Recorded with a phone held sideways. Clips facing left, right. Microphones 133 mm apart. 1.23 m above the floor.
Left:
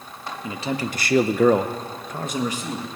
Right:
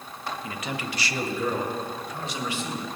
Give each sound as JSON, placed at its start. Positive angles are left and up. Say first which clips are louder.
{"t": 0.4, "sound": "a man speaking", "louder": "left 10 dB", "side_deg": 25, "distance_m": 1.2}